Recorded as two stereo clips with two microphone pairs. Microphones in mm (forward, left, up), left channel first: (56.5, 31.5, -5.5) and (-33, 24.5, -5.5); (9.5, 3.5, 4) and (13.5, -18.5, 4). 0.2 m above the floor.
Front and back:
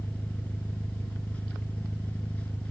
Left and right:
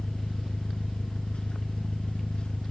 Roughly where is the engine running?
Left.